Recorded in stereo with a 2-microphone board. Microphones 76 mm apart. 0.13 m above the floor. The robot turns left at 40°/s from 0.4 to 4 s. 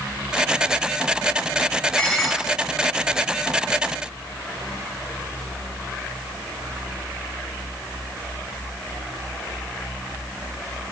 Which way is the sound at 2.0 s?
10° left (ahead or behind).